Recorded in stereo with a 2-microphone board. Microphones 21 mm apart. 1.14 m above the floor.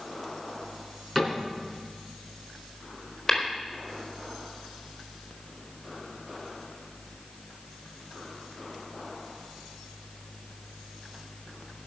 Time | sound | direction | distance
1.1 | a cupboard door | 5° right (ahead or behind) | 4 m
3.3 | tapping | 20° left (ahead or behind) | 4 m